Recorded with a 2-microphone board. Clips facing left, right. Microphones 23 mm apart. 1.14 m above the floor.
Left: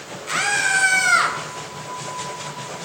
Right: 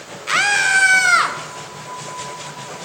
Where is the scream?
35° right (ahead or behind), 1.1 m; by 1.4 s 15° right (ahead or behind), 1.5 m.